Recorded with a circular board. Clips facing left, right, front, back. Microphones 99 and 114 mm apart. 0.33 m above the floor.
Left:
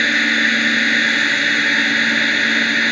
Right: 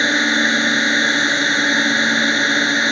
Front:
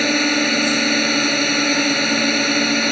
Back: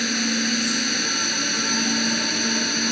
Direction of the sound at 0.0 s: 20° right.